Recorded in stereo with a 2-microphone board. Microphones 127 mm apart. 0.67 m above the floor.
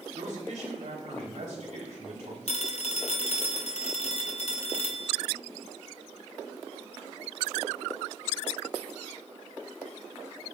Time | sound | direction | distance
0.1 | a man speaking | 75° right (ahead or behind) | 2.5 m
2.5 | a phone ringing | 60° left (ahead or behind) | 0.8 m